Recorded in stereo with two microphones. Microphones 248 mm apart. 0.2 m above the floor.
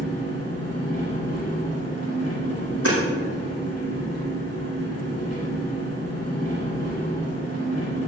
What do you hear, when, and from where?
0.0 s an engine running: 75° left (ahead or behind), 5 m
2.9 s hammering: 65° right (ahead or behind), 5 m